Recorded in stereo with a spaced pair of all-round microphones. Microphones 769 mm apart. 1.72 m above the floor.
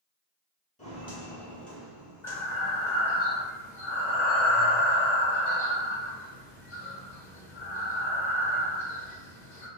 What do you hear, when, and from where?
0.8 s footsteps: 10° left (ahead or behind), 1.8 m; by 3.2 s 10° right (ahead or behind), 2.5 m
2.2 s breathing: 70° left (ahead or behind), 1.1 m